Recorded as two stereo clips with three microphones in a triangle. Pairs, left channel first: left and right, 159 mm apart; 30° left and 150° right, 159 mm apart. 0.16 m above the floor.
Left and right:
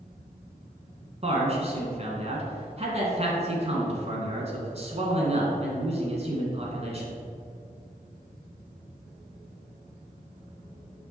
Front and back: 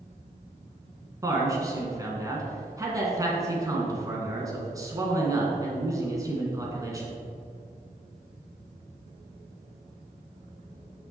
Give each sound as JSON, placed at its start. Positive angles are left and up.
{"t": 1.2, "sound": "a man speaking", "azimuth_deg": -95, "distance_m": 1.3}